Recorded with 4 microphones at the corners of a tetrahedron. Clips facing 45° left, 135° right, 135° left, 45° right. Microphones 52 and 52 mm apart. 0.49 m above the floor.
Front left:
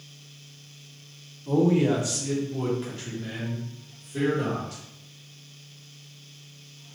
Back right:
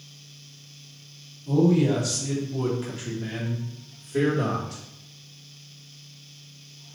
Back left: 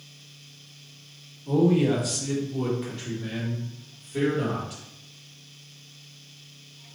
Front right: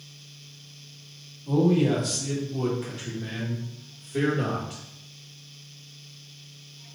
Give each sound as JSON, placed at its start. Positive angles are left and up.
{"t": 1.5, "sound": "a man speaking", "azimuth_deg": 60, "distance_m": 1.0}